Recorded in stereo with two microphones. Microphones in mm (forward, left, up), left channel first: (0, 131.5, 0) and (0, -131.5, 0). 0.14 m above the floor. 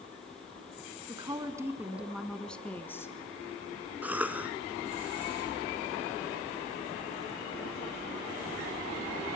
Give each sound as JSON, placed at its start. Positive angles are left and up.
{"t": 1.1, "sound": "a woman speaking", "side_deg": -15, "distance_m": 1.1}
{"t": 4.0, "sound": "a cough", "side_deg": -5, "distance_m": 1.1}